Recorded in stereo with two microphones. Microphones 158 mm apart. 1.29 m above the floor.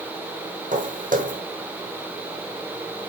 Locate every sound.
0.7 s footsteps: 55° right (ahead or behind), 3 m